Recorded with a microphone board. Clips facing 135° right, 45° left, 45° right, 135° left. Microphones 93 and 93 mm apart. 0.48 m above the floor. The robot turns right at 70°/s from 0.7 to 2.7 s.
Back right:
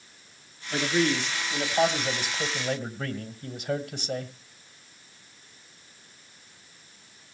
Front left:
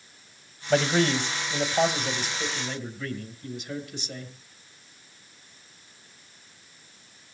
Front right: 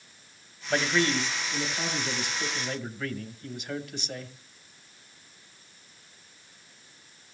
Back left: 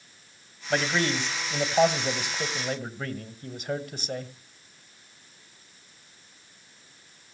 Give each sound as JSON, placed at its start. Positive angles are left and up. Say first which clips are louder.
{"t": 0.7, "sound": "a man speaking", "louder": "front left 3 dB, even", "azimuth_deg": 45, "distance_m": 2.0}